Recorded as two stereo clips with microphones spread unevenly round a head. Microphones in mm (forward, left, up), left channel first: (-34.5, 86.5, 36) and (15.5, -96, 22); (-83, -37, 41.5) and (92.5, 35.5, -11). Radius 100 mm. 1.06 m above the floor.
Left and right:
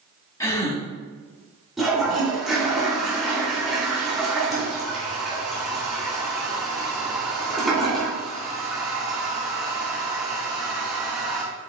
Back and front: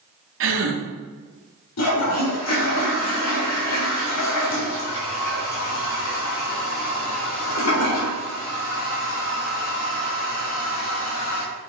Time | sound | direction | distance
0.4 | a gasp | 30° left | 2.0 m
1.8 | a toilet flushing | 165° right | 4 m